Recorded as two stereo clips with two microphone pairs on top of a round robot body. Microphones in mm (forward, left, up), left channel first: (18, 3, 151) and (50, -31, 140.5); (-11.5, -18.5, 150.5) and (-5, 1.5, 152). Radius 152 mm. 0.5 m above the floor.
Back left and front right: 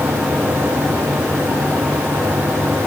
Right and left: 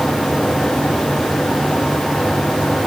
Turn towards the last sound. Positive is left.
No sound to turn to.